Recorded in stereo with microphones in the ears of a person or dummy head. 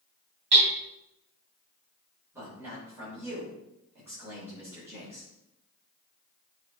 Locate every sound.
0.5 s hammering: 40° right (ahead or behind), 3 m
2.3 s a man speaking: 10° right (ahead or behind), 3.5 m